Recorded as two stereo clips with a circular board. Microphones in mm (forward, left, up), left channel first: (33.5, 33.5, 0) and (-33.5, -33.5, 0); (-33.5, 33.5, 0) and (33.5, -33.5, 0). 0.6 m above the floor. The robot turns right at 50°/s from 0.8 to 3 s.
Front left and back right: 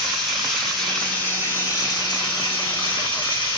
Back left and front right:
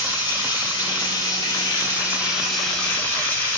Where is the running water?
40° right, 1.5 m; by 3.6 s 70° left, 1.5 m.